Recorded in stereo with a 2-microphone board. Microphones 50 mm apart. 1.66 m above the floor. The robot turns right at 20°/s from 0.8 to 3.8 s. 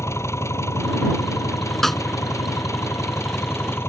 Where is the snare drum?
5° left (ahead or behind); by 2.0 s centre (ahead or behind).